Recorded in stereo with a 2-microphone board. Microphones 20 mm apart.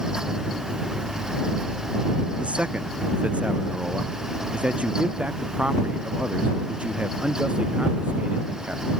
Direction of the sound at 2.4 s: 80° right.